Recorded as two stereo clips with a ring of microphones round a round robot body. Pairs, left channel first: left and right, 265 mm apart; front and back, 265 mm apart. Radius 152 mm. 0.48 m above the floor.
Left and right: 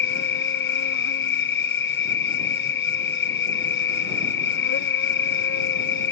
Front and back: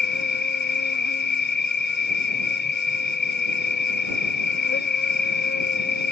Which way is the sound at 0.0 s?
50° left.